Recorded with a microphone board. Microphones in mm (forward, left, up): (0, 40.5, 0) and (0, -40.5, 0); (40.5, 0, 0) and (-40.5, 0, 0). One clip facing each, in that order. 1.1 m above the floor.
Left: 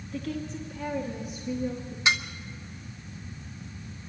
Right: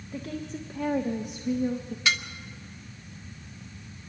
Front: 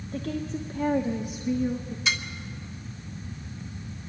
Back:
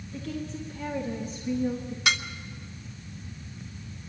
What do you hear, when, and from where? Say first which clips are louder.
0.1 s a woman speaking: left 1 dB, front 4 dB; 30° right, 1.5 m; by 1.9 s 100° right, 1.5 m
2.0 s dishes clattering: left 2 dB, back 3 dB; 160° left, 1.1 m